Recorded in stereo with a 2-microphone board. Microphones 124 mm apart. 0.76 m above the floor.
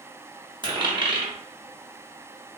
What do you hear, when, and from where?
0.6 s a dropped coin: 35° right (ahead or behind), 0.8 m